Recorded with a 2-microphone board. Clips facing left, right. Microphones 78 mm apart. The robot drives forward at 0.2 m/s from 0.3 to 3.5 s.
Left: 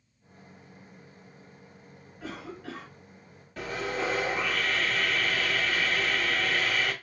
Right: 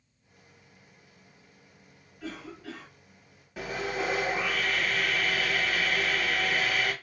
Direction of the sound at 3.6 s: 10° right (ahead or behind).